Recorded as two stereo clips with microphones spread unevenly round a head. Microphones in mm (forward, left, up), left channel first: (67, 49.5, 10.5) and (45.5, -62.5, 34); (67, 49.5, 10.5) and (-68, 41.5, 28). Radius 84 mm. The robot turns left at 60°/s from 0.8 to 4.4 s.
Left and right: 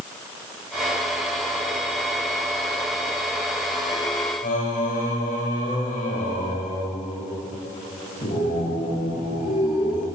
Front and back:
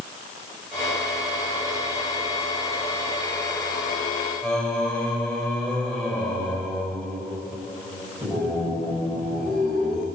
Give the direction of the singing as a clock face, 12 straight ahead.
9 o'clock.